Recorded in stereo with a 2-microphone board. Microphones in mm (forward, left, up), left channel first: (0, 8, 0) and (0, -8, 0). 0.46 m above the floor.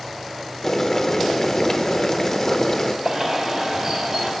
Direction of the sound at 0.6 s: 35° left (ahead or behind).